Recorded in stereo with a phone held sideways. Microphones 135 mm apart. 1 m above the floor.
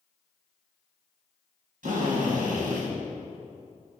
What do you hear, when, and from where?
1.8 s a drill: 80° right, 3.5 m